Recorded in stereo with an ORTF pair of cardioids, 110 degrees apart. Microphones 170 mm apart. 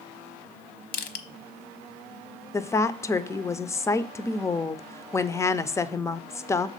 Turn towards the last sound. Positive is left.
turn(degrees=15)